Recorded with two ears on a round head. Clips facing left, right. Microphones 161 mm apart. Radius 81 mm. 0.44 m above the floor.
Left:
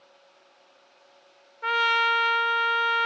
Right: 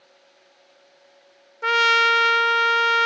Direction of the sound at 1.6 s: 50° right (ahead or behind).